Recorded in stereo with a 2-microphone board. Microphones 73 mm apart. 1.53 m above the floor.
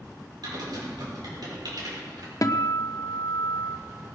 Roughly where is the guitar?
Left.